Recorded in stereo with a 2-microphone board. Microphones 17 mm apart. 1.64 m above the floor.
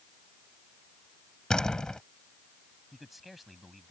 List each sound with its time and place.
1.5 s a door slam: 45° left (ahead or behind)
2.9 s a man speaking: 5° right (ahead or behind)